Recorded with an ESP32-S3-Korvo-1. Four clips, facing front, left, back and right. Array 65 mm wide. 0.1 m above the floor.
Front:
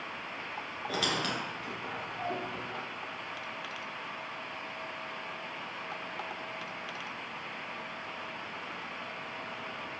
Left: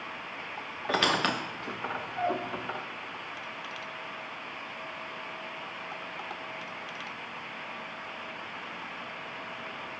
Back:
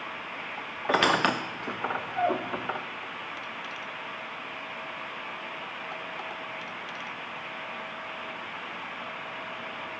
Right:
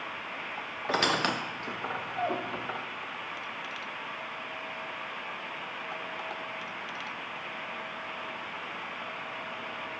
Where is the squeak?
175° right, 0.5 m.